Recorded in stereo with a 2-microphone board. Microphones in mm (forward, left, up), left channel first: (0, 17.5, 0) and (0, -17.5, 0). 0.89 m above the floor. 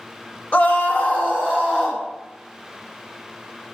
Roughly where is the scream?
Left.